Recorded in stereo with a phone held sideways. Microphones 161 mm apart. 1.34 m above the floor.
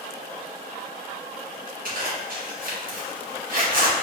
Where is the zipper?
60° right (ahead or behind), 1.0 m.